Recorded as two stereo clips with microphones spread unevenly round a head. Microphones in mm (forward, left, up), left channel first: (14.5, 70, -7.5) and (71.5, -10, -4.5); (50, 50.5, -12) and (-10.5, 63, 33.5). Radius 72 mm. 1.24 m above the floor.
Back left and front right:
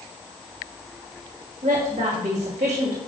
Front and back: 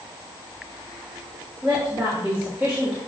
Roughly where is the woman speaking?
Right.